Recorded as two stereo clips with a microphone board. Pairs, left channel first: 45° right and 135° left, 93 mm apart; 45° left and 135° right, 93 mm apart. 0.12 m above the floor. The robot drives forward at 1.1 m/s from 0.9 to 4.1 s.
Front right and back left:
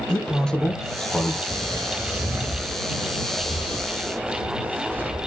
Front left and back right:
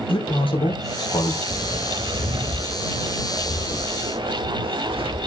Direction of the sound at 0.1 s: 35° left.